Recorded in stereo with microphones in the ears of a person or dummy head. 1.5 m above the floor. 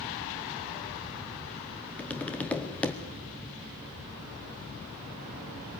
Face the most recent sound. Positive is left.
turn(degrees=5)  # may be behind; listen again after turning